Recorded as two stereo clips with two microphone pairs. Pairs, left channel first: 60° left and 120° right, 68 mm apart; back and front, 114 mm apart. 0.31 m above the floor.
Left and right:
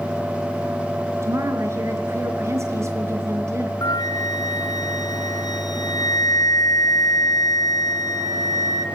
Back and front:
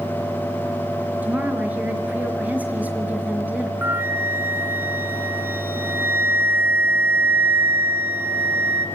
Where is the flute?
70° left, 1.9 m.